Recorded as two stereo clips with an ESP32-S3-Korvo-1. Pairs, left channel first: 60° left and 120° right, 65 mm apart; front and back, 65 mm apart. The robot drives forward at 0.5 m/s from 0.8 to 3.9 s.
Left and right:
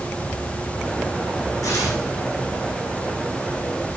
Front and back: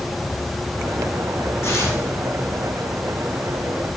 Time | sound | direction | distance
1.6 | tearing paper | 45° left | 5.5 m